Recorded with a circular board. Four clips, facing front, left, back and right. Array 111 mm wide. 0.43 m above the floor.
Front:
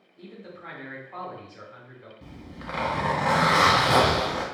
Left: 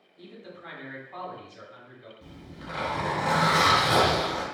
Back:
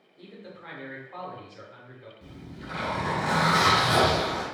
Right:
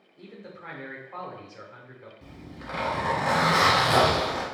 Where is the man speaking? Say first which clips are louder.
Right 1 dB, front 2 dB; 70° right, 1.0 m.